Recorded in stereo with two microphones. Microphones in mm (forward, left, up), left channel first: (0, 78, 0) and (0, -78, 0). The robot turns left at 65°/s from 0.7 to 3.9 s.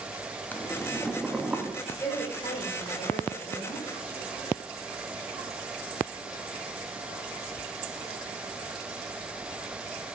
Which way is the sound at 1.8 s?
175° left.